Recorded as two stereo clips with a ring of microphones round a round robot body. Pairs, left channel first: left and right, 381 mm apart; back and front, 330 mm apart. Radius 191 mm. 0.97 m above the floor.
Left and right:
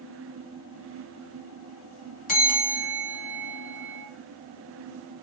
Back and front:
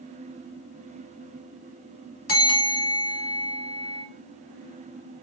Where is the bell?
155° left, 1.3 m.